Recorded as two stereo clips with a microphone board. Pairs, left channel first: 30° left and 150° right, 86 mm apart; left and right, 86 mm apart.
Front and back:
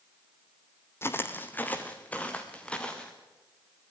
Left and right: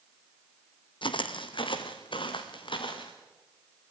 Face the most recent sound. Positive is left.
turn(degrees=110)